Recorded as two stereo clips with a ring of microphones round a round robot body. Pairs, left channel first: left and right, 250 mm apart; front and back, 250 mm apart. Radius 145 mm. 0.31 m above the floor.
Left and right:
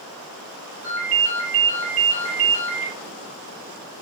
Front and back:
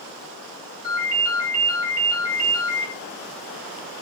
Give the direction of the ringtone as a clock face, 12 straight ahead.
5 o'clock.